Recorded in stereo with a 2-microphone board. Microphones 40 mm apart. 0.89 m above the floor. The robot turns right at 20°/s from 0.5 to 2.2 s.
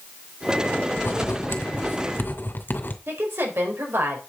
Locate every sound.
1.0 s writing: 75° left (ahead or behind), 2.5 m; by 3.0 s 55° left (ahead or behind), 2.5 m
3.1 s a woman speaking: 80° right, 4.5 m